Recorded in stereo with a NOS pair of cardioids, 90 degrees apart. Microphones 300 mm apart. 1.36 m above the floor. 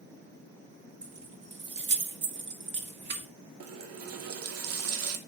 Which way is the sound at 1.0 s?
40° right.